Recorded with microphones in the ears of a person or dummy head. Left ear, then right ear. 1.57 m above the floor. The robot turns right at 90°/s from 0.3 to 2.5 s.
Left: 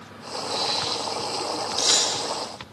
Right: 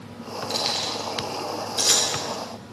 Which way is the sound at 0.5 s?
70° right (ahead or behind).